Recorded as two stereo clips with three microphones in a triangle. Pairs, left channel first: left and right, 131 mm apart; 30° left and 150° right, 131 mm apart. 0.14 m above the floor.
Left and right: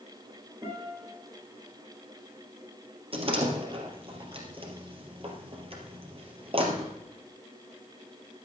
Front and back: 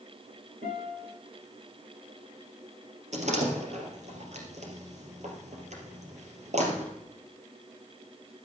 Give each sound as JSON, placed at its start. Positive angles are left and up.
{"t": 0.6, "sound": "a guitar", "azimuth_deg": -155, "distance_m": 9.0}
{"t": 3.1, "sound": "a door slam", "azimuth_deg": -130, "distance_m": 3.0}